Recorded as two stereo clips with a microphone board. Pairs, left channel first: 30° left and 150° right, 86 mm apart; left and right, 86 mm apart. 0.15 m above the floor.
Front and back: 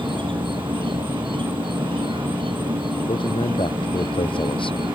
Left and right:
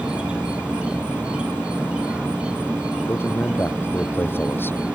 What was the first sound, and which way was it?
An insect, 170° right.